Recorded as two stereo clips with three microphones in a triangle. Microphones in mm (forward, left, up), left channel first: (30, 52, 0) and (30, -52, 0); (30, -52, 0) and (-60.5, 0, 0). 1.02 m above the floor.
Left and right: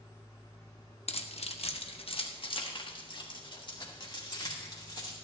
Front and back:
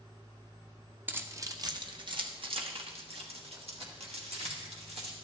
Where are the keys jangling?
80° left, 0.7 m; by 5.2 s 140° left, 2.5 m.